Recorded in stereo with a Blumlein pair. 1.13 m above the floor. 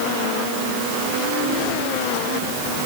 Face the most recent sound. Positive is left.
No sound to turn to.